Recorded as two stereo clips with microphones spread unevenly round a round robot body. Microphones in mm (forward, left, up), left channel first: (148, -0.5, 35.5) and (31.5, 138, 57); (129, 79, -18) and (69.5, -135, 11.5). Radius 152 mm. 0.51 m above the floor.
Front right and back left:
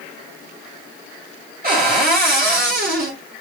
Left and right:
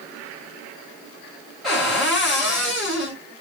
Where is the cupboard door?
160° left, 1.9 m.